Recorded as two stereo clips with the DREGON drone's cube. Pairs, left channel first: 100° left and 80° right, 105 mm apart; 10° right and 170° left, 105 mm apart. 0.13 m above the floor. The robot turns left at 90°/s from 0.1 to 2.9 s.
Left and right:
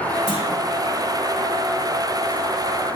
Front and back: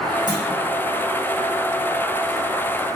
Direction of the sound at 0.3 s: 130° left.